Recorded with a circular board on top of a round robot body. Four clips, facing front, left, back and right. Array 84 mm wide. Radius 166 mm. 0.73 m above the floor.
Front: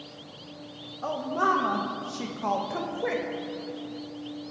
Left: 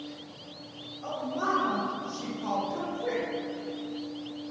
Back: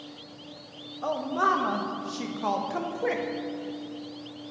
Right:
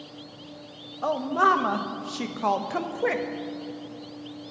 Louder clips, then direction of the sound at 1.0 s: Right 9 dB, even; 95° right.